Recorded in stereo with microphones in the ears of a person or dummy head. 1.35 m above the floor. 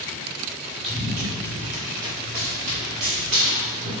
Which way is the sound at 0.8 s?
Centre (ahead or behind).